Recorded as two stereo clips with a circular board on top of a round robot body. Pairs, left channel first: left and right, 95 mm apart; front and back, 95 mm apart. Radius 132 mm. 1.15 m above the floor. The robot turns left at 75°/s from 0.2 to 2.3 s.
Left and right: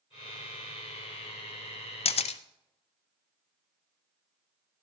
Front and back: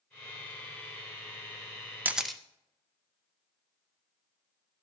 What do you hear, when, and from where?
2.0 s a camera shutter: 110° left, 0.6 m; by 2.4 s 90° left, 0.6 m